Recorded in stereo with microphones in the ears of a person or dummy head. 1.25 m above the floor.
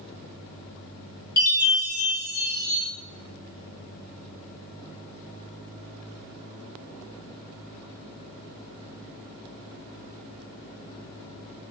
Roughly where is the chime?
Left.